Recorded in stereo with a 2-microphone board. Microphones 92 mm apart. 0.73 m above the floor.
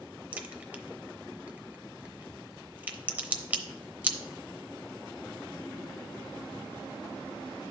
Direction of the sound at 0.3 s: 15° right (ahead or behind).